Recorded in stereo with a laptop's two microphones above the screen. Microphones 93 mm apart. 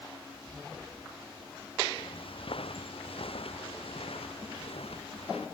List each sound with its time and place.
2.0 s footsteps: 65° left (ahead or behind); by 5.5 s 80° left